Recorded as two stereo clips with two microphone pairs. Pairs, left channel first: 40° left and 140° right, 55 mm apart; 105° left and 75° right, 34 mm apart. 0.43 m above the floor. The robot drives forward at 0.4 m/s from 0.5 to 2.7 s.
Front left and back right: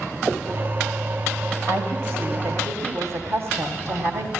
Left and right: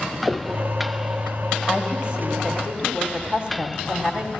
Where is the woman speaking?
125° right, 2.0 m; by 4.3 s 135° right, 2 m.